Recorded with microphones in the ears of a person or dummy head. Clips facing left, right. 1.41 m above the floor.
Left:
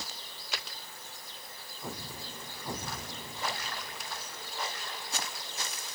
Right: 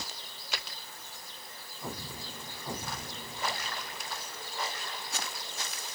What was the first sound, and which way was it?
Only background noise.